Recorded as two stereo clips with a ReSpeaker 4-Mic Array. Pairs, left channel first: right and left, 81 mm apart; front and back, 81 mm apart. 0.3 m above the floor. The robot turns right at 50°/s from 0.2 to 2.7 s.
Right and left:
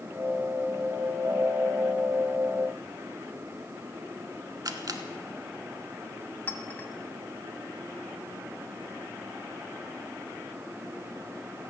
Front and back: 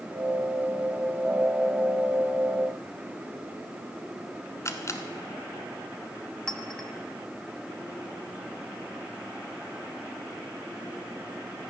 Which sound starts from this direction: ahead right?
A clink, at 6.5 s.